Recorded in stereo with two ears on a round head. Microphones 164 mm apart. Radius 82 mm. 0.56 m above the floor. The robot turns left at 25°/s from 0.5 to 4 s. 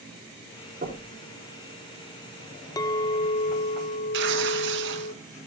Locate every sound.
0.8 s knocking: 40° right (ahead or behind), 5 m; by 1.1 s 50° right (ahead or behind), 5 m
2.8 s a clink: 155° left, 0.5 m; by 5.1 s 125° left, 0.5 m
4.1 s tearing paper: 70° right (ahead or behind), 2.5 m